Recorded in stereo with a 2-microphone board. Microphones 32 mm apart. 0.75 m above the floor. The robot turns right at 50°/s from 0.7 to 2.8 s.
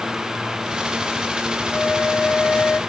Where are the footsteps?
I don't hear footsteps.